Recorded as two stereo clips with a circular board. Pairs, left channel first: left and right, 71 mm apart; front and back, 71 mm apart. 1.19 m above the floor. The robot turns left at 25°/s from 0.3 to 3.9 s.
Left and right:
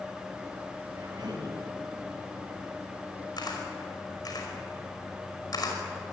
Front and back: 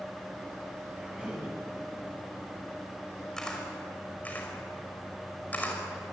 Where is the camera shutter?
80° left, 5 m; by 5.8 s 70° left, 5 m.